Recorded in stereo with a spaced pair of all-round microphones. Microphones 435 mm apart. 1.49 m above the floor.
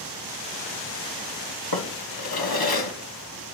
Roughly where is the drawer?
Left.